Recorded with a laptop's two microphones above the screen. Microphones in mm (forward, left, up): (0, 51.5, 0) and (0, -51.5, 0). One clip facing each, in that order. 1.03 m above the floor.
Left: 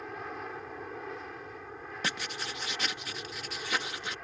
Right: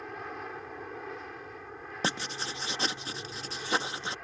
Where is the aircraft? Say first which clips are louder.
Even; centre (ahead or behind).